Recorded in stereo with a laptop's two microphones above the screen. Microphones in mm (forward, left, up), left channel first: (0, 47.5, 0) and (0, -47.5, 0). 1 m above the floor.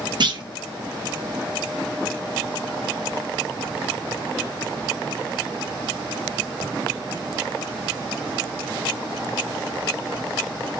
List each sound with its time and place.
0.2 s a clunk: 55° right (ahead or behind), 0.6 m